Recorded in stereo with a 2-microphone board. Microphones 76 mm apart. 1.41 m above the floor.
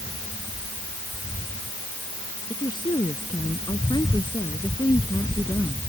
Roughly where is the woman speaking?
Left.